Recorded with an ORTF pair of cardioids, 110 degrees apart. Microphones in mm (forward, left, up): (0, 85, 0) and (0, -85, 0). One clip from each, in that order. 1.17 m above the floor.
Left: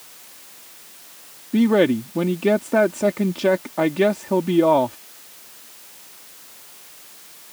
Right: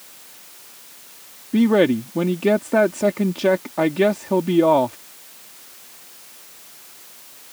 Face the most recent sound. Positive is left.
turn(degrees=0)